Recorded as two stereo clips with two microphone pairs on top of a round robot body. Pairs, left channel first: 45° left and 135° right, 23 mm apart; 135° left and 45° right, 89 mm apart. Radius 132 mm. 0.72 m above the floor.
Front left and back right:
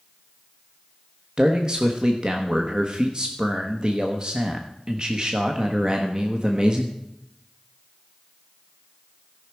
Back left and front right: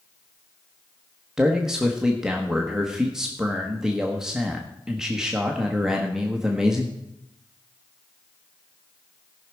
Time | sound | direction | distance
1.4 | a man speaking | 130° right | 1.2 m